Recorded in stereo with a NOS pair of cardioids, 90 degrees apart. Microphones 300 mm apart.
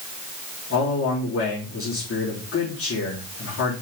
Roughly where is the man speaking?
Ahead left.